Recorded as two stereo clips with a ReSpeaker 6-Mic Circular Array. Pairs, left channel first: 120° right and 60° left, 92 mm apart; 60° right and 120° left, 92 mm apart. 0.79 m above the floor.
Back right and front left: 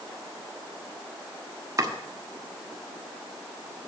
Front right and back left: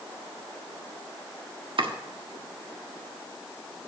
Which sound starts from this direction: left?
Chopping, at 1.8 s.